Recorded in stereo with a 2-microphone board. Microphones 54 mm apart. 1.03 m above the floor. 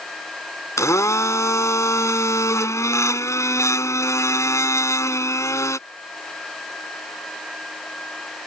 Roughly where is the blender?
Left.